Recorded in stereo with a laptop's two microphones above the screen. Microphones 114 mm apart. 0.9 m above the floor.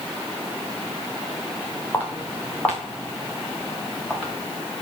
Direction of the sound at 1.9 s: 20° left (ahead or behind).